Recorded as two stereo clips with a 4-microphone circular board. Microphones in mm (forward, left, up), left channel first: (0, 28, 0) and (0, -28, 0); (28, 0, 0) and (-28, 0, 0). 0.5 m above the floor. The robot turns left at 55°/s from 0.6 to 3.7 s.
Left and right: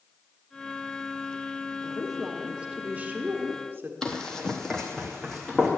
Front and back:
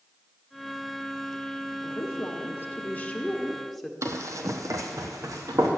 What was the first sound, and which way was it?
A woman speaking, 15° left.